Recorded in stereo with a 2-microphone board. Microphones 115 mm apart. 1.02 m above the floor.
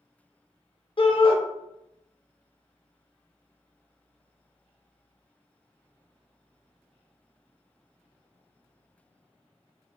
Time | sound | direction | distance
1.0 | a shout | 50° left (ahead or behind) | 0.6 m